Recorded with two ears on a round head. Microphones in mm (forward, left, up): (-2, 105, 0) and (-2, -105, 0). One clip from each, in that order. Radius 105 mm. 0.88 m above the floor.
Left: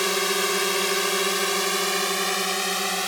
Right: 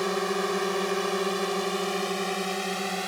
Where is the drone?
75° left (ahead or behind); by 3.1 s 45° left (ahead or behind).